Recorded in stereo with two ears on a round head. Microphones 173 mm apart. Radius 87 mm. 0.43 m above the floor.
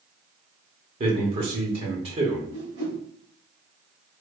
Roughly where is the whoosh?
Right.